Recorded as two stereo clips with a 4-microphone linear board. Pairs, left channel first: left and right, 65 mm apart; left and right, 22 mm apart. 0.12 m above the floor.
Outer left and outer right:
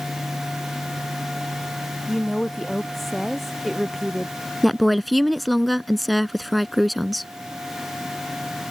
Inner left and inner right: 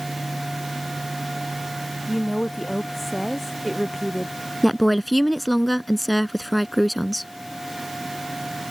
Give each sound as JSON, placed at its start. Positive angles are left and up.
{"t": 2.1, "sound": "a woman speaking", "side_deg": 5}
{"t": 4.6, "sound": "a woman speaking", "side_deg": 0}